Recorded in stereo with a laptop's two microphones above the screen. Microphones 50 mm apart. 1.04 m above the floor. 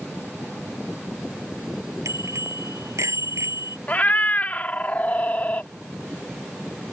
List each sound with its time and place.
2.0 s a bicycle bell: 90° right; by 3.8 s 85° right
3.9 s a cat meowing: 35° left (ahead or behind)